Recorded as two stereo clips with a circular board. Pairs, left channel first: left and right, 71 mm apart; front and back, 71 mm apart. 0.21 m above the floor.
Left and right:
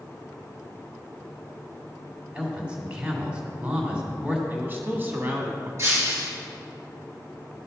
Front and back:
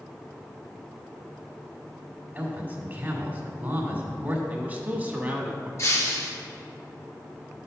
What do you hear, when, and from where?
2.4 s a man speaking: 150° right, 1.8 m
4.5 s a man speaking: 130° right, 1.2 m
5.8 s breaking glass: 45° right, 2.5 m